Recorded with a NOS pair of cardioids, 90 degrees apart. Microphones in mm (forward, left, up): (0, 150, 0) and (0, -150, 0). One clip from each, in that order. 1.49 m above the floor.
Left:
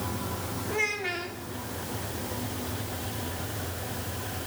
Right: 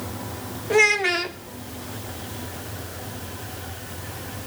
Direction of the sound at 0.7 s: 65° right.